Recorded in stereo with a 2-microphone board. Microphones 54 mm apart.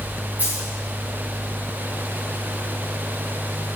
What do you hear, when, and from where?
0.4 s a dropped coin: 40° right (ahead or behind), 4.5 m